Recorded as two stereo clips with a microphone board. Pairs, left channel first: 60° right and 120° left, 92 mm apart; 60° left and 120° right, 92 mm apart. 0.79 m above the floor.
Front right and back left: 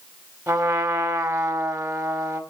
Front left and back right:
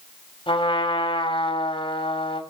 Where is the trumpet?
65° left, 3 m.